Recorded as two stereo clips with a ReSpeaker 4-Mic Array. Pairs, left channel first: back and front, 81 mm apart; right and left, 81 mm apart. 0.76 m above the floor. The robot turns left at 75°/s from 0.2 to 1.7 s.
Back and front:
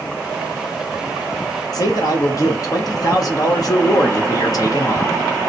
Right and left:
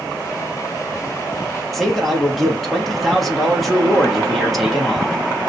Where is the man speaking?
Straight behind, 0.9 m.